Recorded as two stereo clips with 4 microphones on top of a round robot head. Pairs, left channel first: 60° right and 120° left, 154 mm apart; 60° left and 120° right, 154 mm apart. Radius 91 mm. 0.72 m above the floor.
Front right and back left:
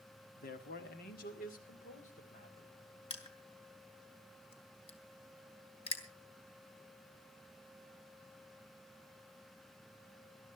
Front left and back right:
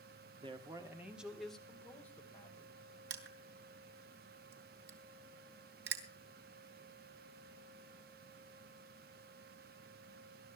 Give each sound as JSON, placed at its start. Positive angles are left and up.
{"t": 0.4, "sound": "a man speaking", "azimuth_deg": -70, "distance_m": 1.6}
{"t": 3.1, "sound": "crushing", "azimuth_deg": -110, "distance_m": 2.0}